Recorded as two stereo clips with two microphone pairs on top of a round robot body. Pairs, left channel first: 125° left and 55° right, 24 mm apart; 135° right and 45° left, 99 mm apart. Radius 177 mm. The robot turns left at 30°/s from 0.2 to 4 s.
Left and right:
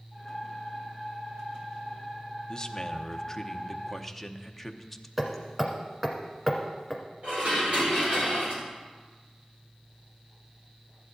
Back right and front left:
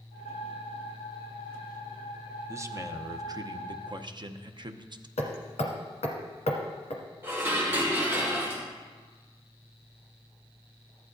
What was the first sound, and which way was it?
A man speaking, 95° left.